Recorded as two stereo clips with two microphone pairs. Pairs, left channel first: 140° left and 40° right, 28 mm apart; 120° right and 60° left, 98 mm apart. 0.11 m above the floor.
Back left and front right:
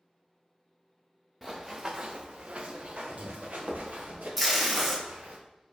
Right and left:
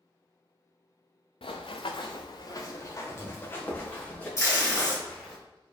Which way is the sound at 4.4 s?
130° right.